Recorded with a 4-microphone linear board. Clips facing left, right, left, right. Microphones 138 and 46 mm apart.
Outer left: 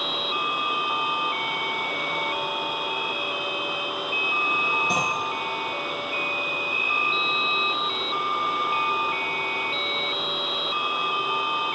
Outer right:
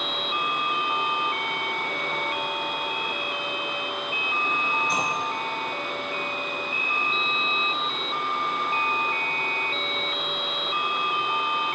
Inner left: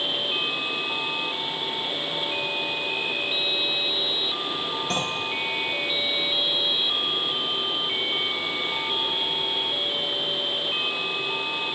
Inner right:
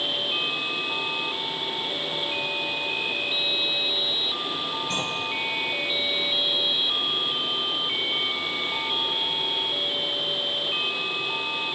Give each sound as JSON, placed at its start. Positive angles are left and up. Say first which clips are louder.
{"t": 4.9, "sound": "a clunk", "louder": "outer left 1 dB, inner left 2 dB", "side_deg": 70, "distance_m": 3.5}